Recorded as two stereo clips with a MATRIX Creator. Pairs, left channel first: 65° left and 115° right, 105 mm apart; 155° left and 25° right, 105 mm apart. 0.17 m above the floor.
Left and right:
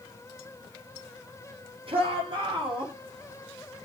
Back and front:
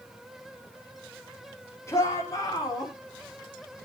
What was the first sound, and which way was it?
A shout, 140° right.